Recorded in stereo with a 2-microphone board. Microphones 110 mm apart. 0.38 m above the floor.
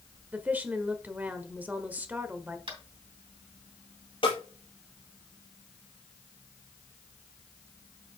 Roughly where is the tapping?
Right.